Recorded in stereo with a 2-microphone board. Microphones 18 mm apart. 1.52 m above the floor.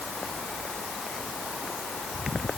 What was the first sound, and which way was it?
Only background noise.